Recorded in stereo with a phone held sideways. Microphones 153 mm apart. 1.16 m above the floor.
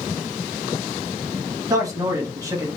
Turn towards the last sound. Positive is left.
turn(degrees=-20)  # may be behind; listen again after turning